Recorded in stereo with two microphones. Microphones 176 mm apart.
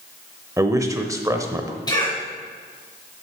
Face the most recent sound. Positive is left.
turn(degrees=25)  # may be behind; listen again after turning